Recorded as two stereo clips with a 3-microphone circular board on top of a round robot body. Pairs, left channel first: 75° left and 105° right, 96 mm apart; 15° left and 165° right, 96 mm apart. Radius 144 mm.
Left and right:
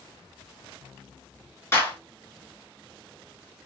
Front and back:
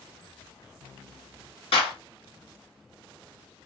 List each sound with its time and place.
1.7 s a clap: 10° left, 2.5 m